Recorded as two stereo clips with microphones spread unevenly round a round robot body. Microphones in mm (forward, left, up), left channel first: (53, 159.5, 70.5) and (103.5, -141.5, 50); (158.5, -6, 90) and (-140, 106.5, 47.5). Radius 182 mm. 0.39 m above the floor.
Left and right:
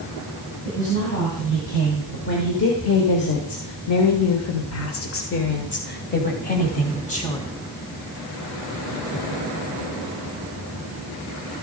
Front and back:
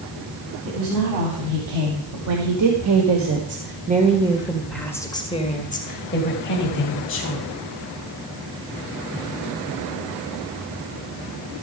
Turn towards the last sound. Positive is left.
turn(degrees=30)